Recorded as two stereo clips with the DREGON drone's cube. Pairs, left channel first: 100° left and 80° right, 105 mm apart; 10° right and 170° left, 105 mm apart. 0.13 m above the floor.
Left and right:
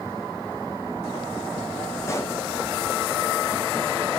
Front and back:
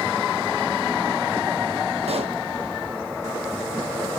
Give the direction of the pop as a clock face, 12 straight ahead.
7 o'clock.